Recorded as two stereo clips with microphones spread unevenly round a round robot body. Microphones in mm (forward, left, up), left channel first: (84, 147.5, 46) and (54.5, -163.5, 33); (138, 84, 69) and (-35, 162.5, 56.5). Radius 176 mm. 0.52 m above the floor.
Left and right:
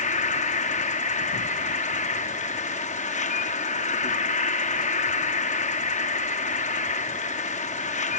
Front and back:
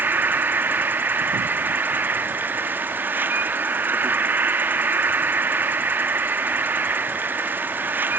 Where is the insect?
105° left.